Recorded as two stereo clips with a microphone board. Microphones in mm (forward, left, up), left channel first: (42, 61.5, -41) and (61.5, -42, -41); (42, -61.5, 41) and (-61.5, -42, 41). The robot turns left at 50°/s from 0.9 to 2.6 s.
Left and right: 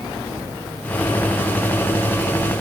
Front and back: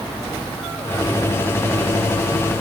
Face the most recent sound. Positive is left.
No sound to turn to.